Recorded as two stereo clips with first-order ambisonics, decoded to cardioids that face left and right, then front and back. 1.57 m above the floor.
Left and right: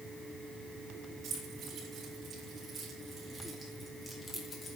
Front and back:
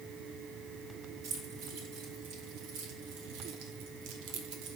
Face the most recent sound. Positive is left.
turn(degrees=150)